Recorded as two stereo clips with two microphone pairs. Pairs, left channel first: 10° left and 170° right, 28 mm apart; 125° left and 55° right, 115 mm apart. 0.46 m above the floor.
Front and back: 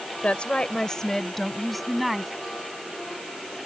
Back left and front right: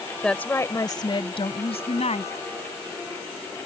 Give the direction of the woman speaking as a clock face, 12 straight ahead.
11 o'clock.